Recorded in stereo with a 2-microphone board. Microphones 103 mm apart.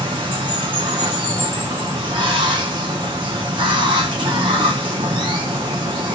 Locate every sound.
0.0 s running water: 50° right (ahead or behind), 0.9 m